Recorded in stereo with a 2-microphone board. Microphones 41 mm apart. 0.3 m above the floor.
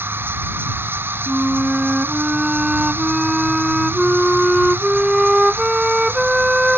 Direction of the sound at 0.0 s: 75° right (ahead or behind).